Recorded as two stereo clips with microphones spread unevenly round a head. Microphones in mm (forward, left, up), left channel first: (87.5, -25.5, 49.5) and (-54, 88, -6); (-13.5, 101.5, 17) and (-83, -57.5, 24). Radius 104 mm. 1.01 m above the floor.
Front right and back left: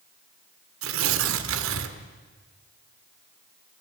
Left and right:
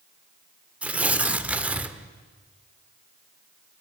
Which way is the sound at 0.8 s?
165° left.